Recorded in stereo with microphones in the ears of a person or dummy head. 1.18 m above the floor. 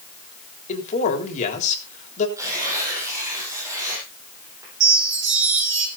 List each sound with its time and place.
0.7 s a man speaking: 40° left (ahead or behind), 3.5 m
2.4 s tearing paper: 20° right (ahead or behind), 6.5 m
4.8 s a chime: 60° right (ahead or behind), 5 m